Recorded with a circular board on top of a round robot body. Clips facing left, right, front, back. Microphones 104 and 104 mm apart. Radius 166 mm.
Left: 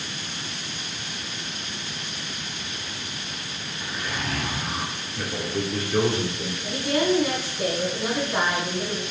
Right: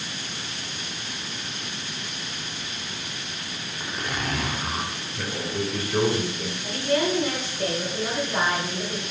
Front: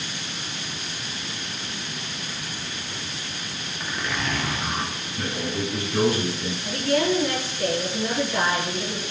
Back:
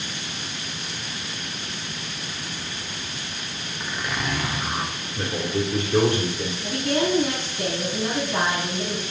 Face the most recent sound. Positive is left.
turn(degrees=175)